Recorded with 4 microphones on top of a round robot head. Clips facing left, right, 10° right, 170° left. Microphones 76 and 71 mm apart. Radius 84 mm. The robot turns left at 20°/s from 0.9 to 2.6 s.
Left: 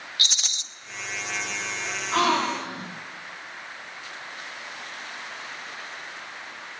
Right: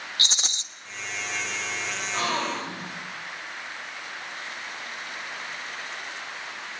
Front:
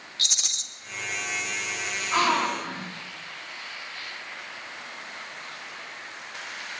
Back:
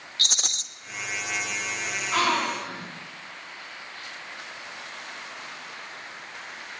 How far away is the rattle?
About 1.5 m.